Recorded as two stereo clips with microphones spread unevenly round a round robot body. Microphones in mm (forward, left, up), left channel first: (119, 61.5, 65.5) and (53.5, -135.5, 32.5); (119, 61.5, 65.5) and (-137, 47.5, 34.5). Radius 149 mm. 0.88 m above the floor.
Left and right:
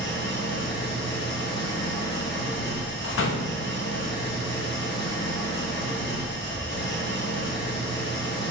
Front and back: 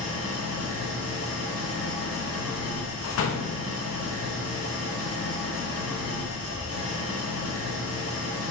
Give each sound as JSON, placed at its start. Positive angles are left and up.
{"t": 0.0, "sound": "an engine running", "azimuth_deg": 35, "distance_m": 1.3}
{"t": 3.0, "sound": "a door slam", "azimuth_deg": 40, "distance_m": 0.7}